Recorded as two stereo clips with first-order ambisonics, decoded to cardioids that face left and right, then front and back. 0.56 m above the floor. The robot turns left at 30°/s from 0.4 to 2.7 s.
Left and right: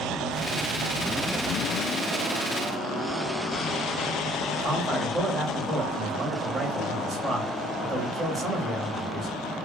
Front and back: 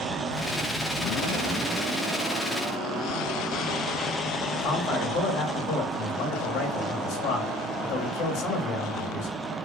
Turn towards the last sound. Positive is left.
turn(degrees=-25)